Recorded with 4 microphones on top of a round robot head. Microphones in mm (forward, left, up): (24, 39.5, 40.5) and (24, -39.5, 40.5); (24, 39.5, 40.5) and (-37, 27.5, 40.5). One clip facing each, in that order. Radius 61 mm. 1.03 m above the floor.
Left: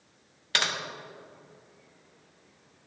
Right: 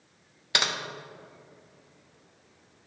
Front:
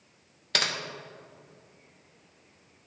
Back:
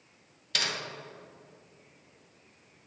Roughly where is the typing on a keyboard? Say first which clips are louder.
Right 1 dB, front 3 dB; ahead.